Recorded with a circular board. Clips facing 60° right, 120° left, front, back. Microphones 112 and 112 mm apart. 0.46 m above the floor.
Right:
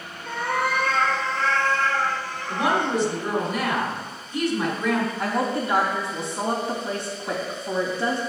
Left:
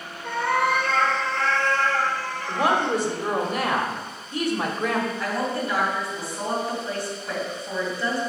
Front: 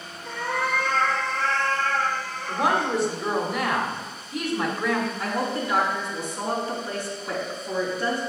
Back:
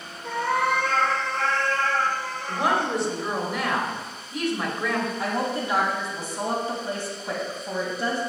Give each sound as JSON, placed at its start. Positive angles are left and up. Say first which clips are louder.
{"t": 0.2, "sound": "a cat meowing", "louder": "left 3 dB, back 4 dB", "azimuth_deg": 150, "distance_m": 3.0}
{"t": 2.5, "sound": "a woman speaking", "louder": "left 1 dB, front 1 dB", "azimuth_deg": 85, "distance_m": 1.6}
{"t": 5.2, "sound": "a woman speaking", "louder": "right 2 dB, even", "azimuth_deg": -125, "distance_m": 2.5}